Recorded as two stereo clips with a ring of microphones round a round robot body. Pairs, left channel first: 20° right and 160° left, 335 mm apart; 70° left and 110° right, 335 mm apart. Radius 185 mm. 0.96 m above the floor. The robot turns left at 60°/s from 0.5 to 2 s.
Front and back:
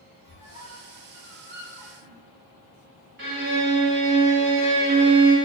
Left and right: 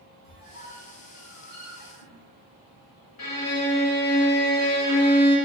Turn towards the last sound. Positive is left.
turn(degrees=105)